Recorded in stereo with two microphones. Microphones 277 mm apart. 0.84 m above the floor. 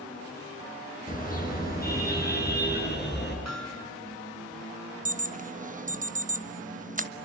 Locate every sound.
1.1 s a car horn: 30° left (ahead or behind), 6.5 m; by 3.4 s 40° left (ahead or behind), 8 m
3.5 s hammering: 65° left (ahead or behind), 6.5 m
5.0 s an alarm: 30° right (ahead or behind), 1.3 m